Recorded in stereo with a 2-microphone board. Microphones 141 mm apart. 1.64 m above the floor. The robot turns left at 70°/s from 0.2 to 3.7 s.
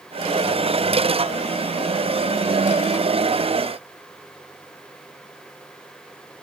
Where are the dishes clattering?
I don't hear dishes clattering.